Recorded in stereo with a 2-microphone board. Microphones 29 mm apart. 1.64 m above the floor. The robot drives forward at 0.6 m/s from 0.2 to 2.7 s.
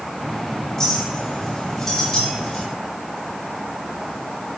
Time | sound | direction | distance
0.8 | a clink | 20° left (ahead or behind) | 3 m